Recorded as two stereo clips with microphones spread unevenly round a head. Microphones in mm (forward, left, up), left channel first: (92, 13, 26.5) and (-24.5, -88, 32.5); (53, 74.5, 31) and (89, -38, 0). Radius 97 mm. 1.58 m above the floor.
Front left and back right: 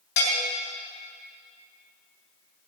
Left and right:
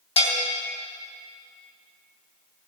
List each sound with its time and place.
0.2 s a bell: 70° left, 3.5 m